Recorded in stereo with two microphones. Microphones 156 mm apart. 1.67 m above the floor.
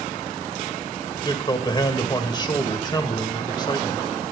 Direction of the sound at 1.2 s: 30° left (ahead or behind).